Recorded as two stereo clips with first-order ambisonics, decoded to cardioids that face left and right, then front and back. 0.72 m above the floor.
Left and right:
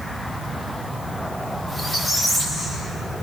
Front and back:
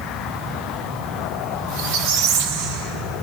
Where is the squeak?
175° right, 0.9 m.